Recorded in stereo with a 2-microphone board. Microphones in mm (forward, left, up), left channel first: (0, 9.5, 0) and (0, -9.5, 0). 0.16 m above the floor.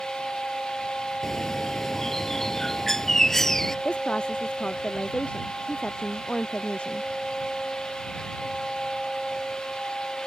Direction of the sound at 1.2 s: 15° left (ahead or behind).